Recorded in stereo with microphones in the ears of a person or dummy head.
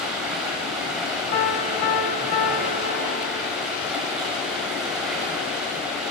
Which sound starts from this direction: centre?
Running water, at 0.0 s.